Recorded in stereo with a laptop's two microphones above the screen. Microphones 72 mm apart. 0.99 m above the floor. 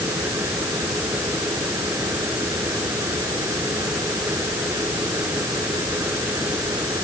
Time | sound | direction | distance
0.0 | a fan | 35° right (ahead or behind) | ?